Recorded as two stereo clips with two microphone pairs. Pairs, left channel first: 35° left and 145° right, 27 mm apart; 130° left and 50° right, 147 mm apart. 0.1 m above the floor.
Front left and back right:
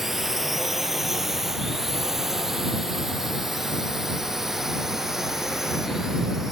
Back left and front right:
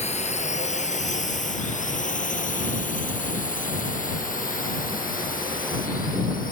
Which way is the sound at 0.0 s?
135° left.